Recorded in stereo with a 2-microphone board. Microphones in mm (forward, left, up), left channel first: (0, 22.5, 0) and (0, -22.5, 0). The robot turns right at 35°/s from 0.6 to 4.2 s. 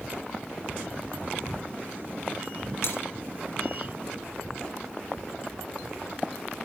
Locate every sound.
2.8 s breaking glass: 80° left, 3.5 m